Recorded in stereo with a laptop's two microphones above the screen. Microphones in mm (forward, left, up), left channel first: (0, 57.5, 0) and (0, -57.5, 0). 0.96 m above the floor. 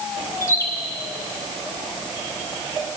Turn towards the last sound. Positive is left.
turn(degrees=25)  # may be behind; listen again after turning